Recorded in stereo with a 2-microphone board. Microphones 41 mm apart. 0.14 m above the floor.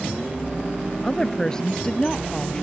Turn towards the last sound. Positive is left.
turn(degrees=15)  # may be behind; listen again after turning